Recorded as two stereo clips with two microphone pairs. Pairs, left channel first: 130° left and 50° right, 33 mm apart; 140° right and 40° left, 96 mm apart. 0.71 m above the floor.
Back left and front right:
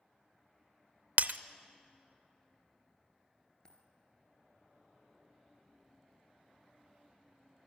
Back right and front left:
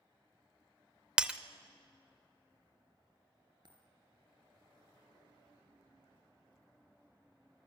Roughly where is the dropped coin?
Left.